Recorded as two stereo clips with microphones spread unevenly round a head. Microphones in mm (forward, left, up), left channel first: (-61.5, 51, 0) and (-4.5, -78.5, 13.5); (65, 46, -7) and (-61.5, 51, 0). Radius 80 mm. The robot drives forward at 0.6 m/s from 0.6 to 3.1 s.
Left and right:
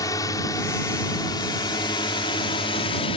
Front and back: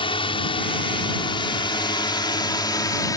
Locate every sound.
0.0 s a drone: 45° left; by 3.2 s 60° left